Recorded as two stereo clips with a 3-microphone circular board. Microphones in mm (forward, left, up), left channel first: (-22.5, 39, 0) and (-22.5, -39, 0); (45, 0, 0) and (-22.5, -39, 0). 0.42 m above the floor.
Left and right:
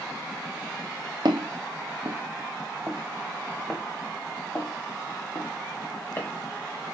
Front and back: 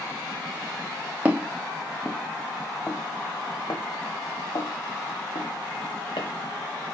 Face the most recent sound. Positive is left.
turn(degrees=25)